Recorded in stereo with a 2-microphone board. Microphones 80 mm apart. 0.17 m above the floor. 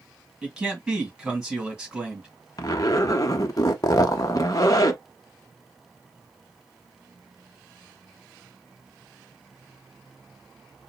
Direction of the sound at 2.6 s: 45° left (ahead or behind).